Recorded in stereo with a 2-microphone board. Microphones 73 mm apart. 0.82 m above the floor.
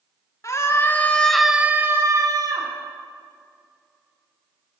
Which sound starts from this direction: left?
A scream, at 0.4 s.